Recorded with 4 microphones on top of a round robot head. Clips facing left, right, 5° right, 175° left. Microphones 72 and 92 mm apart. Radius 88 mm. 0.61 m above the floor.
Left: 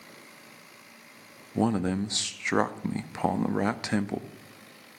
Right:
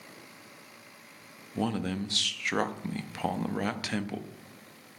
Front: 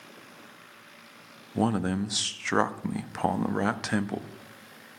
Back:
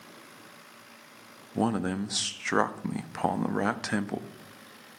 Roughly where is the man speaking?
Left.